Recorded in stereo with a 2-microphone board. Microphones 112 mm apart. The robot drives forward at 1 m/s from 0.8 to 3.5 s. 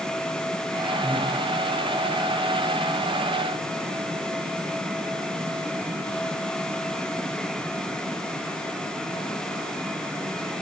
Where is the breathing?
25° left (ahead or behind), 4 m.